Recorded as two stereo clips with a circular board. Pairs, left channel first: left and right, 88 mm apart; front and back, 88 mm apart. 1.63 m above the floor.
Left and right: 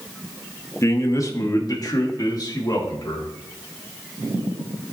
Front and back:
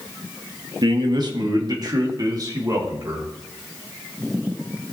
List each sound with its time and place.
0.8 s a man speaking: 145° left, 1.2 m; by 3.3 s 130° left, 2.5 m